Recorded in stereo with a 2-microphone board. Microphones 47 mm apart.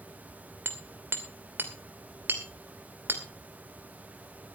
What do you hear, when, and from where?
0.7 s hammering: 50° right (ahead or behind), 2.5 m